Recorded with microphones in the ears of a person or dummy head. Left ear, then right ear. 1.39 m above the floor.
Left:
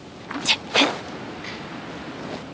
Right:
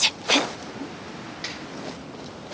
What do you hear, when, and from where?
1.4 s a snare drum: 55° right (ahead or behind), 4.5 m